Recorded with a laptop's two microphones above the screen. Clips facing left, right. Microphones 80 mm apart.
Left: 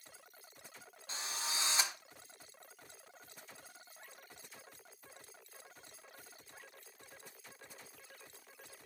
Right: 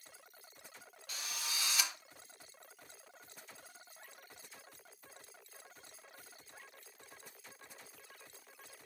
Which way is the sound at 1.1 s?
30° left (ahead or behind).